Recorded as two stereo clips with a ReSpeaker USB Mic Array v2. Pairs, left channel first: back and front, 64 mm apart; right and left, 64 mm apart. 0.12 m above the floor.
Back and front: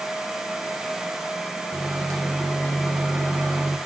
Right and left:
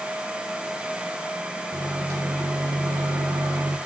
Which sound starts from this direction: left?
A microwave, at 1.7 s.